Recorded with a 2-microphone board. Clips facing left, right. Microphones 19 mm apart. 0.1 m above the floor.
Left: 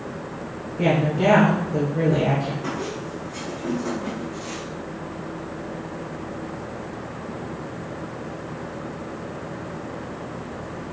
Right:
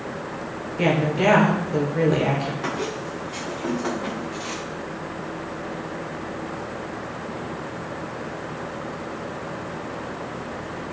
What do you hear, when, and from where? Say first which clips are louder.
0.8 s a woman speaking: even; 45° right (ahead or behind), 1.6 m
2.6 s a squeak: right 2 dB; 85° right, 1.6 m